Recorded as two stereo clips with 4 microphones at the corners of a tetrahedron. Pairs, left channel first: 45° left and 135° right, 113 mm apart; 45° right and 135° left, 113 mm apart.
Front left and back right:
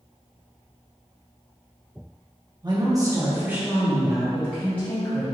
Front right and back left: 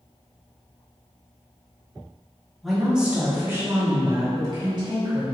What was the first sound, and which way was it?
A woman speaking, 135° right.